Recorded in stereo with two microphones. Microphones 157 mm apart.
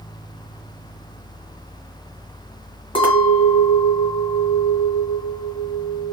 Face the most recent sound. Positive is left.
turn(degrees=35)  # may be behind; listen again after turning